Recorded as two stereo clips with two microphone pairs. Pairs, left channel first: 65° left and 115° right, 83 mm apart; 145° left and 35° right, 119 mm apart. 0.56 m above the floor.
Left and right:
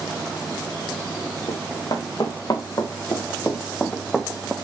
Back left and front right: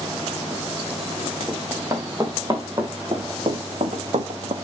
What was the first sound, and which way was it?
Running footsteps, 30° left.